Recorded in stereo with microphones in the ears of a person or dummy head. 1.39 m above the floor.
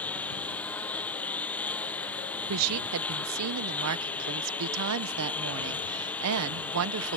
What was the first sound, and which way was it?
A lawn mower, 10° left (ahead or behind).